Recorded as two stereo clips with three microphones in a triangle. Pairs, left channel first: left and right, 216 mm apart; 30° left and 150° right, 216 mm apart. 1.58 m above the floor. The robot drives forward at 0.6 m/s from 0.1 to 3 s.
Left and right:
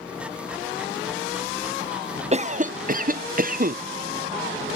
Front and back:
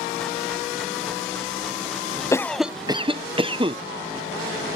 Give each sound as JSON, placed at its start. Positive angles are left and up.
{"t": 2.3, "sound": "a cough", "azimuth_deg": -45}